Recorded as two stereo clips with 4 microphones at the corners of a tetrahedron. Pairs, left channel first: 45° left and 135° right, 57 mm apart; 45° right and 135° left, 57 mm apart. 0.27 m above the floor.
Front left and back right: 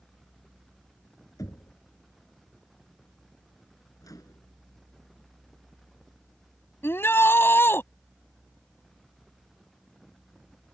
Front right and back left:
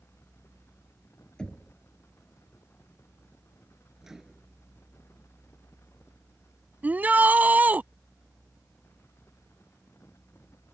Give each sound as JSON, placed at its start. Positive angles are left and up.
{"t": 1.4, "sound": "knocking", "azimuth_deg": 30}
{"t": 4.0, "sound": "a microwave", "azimuth_deg": 50}
{"t": 6.8, "sound": "a shout", "azimuth_deg": 80}